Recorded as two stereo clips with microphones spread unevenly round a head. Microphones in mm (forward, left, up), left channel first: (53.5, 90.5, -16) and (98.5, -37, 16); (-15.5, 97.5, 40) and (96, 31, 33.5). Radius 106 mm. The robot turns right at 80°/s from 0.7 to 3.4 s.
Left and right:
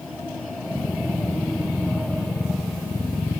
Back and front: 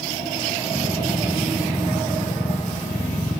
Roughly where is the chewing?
No chewing in this recording.